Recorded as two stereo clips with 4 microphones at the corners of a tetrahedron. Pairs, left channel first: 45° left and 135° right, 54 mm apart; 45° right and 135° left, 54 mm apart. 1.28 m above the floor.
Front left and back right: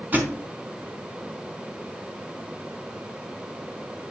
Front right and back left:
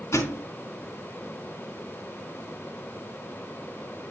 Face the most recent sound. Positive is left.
turn(degrees=-75)